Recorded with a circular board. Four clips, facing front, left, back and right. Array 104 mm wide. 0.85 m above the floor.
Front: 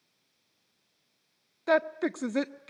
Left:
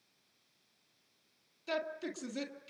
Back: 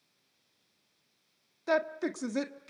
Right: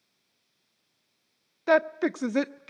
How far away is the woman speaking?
About 1.4 m.